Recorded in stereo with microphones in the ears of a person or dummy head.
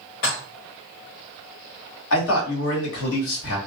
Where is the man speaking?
75° left (ahead or behind), 1.6 m.